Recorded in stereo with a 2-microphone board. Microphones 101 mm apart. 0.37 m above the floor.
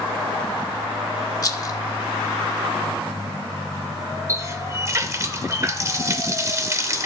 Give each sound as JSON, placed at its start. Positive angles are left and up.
{"t": 1.4, "sound": "a rattle", "side_deg": 40, "distance_m": 0.6}
{"t": 4.3, "sound": "a running tap", "side_deg": -30, "distance_m": 0.6}